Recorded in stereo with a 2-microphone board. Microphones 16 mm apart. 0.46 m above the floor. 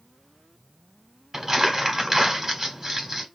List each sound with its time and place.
1.3 s crumpling: 20° right (ahead or behind), 1.1 m